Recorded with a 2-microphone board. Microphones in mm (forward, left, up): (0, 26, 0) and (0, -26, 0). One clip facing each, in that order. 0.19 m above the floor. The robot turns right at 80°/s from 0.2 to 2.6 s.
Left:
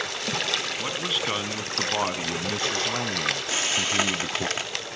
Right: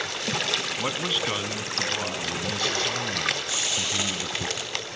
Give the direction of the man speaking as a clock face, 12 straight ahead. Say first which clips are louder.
Right 1 dB; 1 o'clock.